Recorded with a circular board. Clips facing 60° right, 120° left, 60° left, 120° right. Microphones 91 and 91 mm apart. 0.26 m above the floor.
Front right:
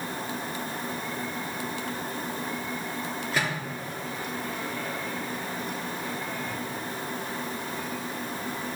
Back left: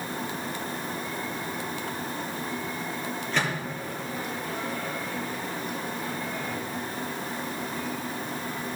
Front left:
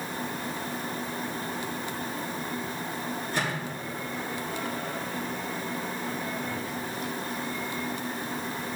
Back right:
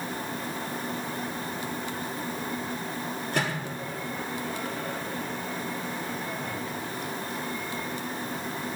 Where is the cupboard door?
No cupboard door in this recording.